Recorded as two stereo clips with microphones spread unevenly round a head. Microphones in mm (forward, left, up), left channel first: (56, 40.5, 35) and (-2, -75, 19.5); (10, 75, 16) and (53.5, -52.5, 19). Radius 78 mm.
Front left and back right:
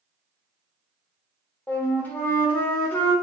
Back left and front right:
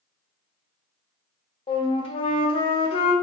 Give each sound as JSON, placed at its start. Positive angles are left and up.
{"t": 1.7, "sound": "a flute", "azimuth_deg": 145, "distance_m": 0.5}